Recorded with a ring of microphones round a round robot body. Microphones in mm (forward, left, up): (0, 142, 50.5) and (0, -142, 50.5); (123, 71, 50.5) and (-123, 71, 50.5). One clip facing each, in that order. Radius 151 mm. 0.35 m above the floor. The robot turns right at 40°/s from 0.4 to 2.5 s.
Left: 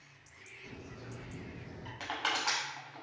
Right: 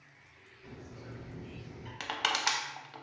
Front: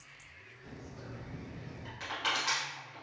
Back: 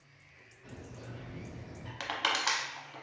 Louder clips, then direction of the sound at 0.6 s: Even, even; 40° right.